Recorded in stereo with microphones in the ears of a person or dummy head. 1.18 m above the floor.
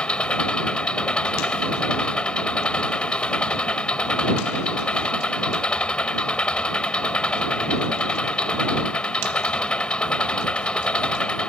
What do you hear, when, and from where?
0.0 s an engine running: 5° left (ahead or behind)